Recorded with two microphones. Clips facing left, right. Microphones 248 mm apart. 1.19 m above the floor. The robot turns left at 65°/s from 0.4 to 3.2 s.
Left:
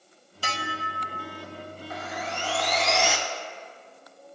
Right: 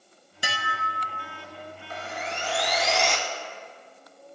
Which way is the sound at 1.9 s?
110° right.